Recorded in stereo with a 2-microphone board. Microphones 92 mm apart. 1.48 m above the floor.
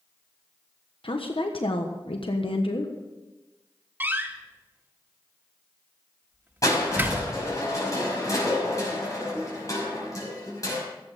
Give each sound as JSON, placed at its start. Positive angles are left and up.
{"t": 1.0, "sound": "a woman speaking", "side_deg": 75, "distance_m": 1.3}
{"t": 4.0, "sound": "a door slam", "side_deg": -25, "distance_m": 1.4}
{"t": 6.6, "sound": "crushing", "side_deg": 40, "distance_m": 5.5}